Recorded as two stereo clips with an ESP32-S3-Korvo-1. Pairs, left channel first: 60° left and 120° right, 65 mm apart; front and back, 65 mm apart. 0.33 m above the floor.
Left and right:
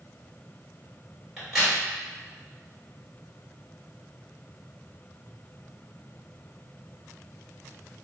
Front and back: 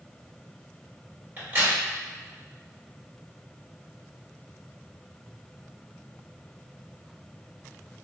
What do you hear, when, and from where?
1.4 s a crack: 155° left, 1.4 m